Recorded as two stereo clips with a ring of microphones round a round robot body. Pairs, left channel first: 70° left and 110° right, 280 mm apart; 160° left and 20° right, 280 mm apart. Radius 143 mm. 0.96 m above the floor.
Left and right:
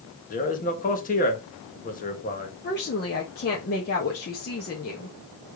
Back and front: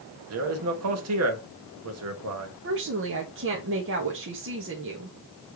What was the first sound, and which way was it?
A man speaking, 10° left.